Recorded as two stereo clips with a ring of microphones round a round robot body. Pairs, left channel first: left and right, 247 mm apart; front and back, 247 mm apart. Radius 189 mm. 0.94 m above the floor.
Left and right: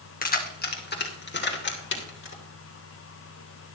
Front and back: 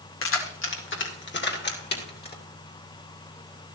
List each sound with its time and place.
0.2 s keys jangling: 35° left, 2.5 m; by 2.4 s 50° left, 3 m